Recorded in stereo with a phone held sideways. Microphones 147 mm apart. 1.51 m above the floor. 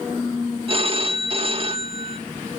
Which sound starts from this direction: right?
A phone ringing, at 0.7 s.